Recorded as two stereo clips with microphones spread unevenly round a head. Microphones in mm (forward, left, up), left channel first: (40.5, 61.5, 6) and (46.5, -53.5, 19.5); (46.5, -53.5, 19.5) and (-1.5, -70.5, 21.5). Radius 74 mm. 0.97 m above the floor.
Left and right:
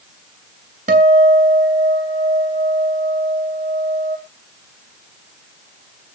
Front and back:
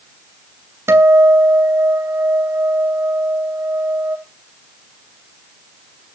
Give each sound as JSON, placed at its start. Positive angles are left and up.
{"t": 0.9, "sound": "a guitar", "azimuth_deg": -130, "distance_m": 3.0}